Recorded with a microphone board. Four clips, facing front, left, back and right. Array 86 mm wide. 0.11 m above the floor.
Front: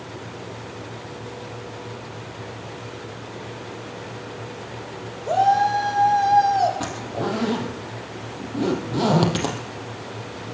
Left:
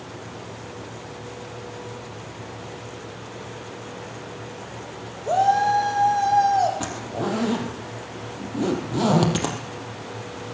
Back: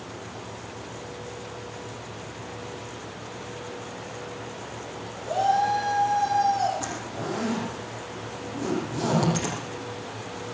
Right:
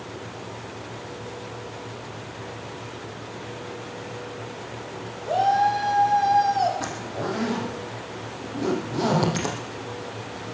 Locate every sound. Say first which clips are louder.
5.2 s a shout: left 2 dB, front 5 dB; 55° left, 5.5 m; by 6.7 s 40° left, 4.5 m
6.8 s a zipper: left 2 dB, front 5 dB; 45° left, 3.5 m